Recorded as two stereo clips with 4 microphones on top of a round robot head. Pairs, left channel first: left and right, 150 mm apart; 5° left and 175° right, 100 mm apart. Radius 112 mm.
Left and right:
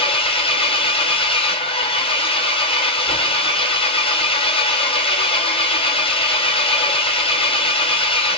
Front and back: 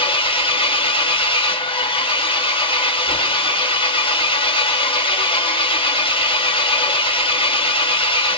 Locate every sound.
0.0 s an engine running: 35° left, 1.1 m